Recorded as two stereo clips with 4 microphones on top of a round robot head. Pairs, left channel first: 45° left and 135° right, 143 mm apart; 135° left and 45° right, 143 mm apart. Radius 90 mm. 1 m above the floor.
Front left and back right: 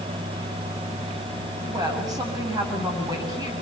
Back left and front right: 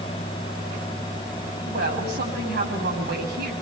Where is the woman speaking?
65° right, 7 m.